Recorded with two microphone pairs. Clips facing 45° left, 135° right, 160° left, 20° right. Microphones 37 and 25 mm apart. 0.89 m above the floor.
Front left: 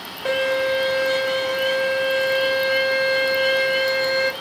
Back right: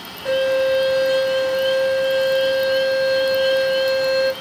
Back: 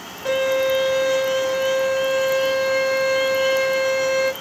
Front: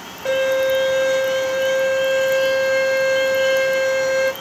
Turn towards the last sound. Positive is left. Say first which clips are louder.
# back right 3 dB, front 2 dB
turn(degrees=75)